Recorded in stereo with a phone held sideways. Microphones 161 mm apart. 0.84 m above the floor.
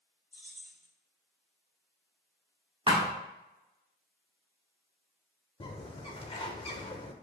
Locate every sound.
0.3 s keys jangling: 60° right (ahead or behind), 1.4 m
2.9 s a thud: 30° right (ahead or behind), 0.9 m
5.6 s a bird: 30° left (ahead or behind), 0.6 m